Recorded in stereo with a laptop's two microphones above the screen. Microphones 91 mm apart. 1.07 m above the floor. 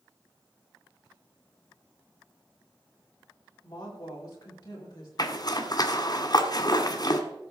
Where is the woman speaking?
45° left (ahead or behind), 3.5 m.